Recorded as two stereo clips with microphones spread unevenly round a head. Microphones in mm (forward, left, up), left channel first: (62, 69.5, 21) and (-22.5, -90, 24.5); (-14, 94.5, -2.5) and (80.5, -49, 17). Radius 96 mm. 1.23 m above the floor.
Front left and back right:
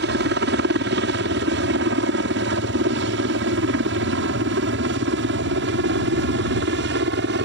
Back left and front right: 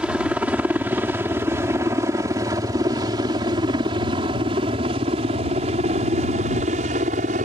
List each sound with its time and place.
0.0 s a helicopter: 140° right; by 7.5 s 105° right